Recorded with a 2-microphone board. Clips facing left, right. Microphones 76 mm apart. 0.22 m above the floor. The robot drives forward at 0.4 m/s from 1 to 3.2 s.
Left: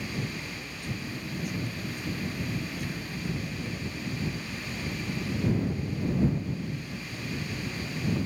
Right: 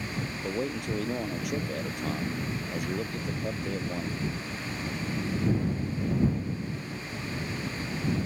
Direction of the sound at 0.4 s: 70° right (ahead or behind).